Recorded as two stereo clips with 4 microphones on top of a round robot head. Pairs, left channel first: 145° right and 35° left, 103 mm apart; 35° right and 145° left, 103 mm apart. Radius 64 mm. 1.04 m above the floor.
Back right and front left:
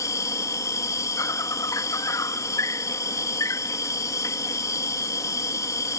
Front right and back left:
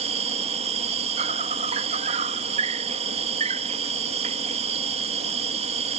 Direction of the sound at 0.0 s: 155° left.